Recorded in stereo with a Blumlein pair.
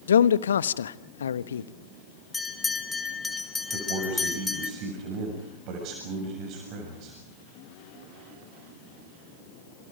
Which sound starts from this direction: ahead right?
A man speaking, at 3.7 s.